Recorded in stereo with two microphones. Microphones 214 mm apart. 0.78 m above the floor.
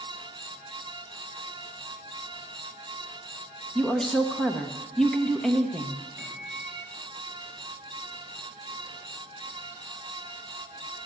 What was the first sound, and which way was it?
A woman speaking, 5° left (ahead or behind).